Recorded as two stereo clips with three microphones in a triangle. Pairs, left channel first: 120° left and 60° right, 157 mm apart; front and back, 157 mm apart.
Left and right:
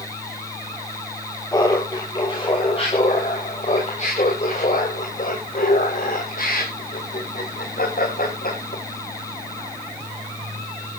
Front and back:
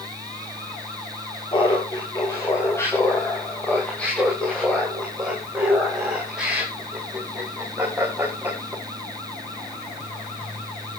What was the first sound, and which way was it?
Laughter, 55° left.